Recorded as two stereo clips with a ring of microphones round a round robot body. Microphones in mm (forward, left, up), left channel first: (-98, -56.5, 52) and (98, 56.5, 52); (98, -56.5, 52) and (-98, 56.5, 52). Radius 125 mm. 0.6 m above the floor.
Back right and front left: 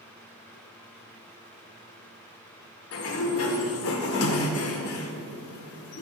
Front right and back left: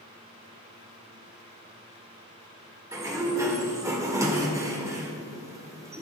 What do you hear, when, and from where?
2.9 s a sliding door: 135° right, 1.4 m